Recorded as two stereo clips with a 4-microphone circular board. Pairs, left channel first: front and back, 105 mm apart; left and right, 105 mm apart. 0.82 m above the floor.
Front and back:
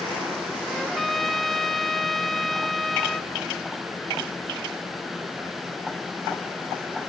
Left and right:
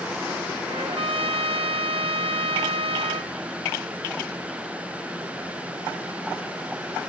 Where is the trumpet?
90° right, 0.8 m.